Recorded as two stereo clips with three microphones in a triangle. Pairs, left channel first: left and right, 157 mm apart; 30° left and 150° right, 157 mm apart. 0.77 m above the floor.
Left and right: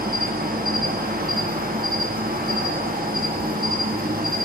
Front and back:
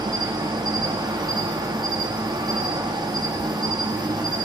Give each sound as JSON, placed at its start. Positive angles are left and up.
{"t": 0.0, "sound": "an insect", "azimuth_deg": -85, "distance_m": 0.8}